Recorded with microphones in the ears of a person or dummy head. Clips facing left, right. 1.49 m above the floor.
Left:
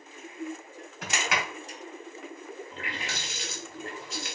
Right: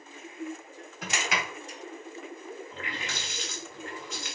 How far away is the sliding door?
About 2.5 m.